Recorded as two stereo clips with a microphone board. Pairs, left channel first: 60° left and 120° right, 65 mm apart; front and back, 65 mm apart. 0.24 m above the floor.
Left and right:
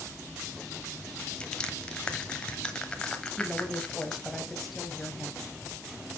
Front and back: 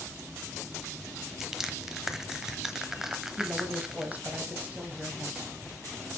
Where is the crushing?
110° left, 1.0 m.